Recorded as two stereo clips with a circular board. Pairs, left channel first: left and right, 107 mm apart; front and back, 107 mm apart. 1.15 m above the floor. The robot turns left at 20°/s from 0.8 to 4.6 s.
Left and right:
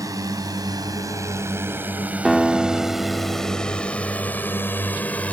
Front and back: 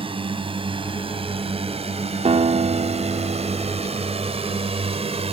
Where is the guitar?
Straight behind; by 4.0 s 145° left.